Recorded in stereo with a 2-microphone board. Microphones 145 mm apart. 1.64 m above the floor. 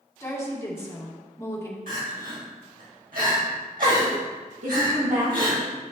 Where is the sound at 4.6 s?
55° right (ahead or behind), 2 m.